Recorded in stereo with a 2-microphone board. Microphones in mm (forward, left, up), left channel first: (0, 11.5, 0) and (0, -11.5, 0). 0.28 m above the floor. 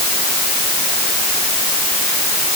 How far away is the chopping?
I don't hear chopping.